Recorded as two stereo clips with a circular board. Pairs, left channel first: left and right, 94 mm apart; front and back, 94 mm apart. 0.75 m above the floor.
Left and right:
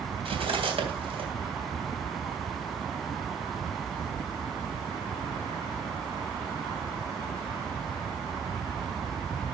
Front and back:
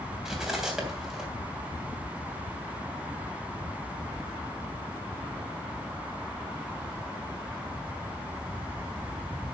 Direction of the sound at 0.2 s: 95° right.